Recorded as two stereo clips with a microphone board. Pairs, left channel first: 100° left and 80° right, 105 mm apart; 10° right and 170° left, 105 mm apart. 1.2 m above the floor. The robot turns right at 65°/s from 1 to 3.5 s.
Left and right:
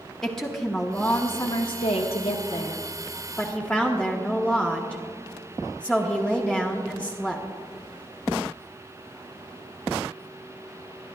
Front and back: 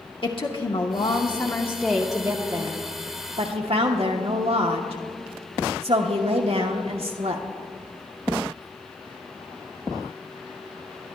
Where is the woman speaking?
15° left, 1.0 m; by 7.5 s 175° left, 1.0 m.